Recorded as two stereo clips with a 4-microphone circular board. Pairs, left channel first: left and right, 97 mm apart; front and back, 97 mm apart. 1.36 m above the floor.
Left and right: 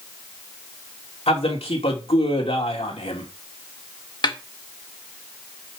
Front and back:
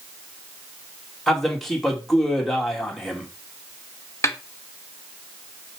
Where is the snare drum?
55° left, 0.9 m.